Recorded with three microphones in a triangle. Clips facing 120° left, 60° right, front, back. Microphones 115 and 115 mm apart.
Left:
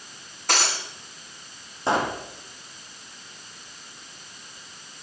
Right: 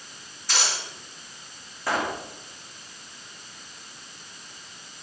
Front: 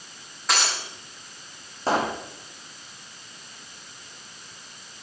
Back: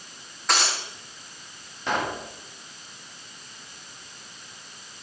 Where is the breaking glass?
90° left, 8.5 m.